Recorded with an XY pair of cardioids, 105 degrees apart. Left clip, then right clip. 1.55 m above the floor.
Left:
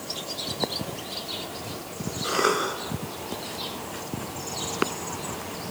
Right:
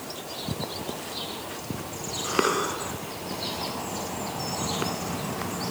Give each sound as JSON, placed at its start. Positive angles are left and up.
{"t": 2.2, "sound": "a cough", "azimuth_deg": 30, "distance_m": 9.5}